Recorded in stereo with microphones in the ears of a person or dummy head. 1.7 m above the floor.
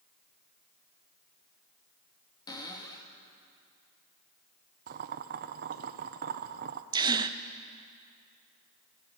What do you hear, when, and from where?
2.5 s a cupboard door: 20° left (ahead or behind), 2.5 m
4.9 s boiling: 55° right (ahead or behind), 1.1 m
6.9 s a gasp: 20° right (ahead or behind), 0.9 m